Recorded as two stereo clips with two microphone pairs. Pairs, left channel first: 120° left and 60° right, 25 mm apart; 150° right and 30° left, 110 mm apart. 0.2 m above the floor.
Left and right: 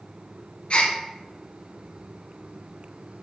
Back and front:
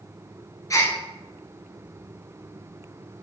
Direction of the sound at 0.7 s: 155° left.